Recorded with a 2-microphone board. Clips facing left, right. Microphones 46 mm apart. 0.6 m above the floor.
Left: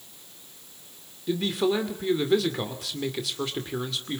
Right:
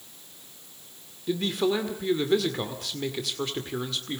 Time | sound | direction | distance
1.3 | a man speaking | centre (ahead or behind) | 2 m